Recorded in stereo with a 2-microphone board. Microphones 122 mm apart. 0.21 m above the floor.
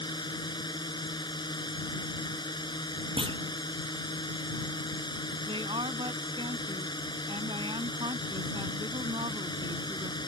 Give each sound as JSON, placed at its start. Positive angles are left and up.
{"t": 0.0, "sound": "a drone", "side_deg": 35}
{"t": 3.2, "sound": "a clunk", "side_deg": -45}
{"t": 5.5, "sound": "a woman speaking", "side_deg": -45}